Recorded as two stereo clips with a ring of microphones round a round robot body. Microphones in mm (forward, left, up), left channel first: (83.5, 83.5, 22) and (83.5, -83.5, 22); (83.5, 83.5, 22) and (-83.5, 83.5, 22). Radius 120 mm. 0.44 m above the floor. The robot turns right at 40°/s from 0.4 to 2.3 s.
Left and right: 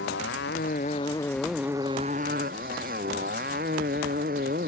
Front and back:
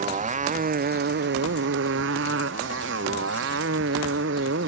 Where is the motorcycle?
135° left; by 4.7 s 145° right.